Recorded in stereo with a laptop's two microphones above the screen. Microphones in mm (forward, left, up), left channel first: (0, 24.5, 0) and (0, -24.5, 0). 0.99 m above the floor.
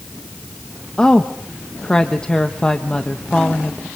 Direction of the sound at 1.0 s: 20° left (ahead or behind).